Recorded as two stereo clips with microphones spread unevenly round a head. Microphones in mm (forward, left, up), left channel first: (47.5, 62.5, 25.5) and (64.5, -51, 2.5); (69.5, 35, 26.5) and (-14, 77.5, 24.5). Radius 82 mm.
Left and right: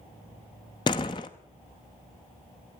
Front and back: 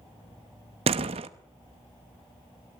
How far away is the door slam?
About 0.9 m.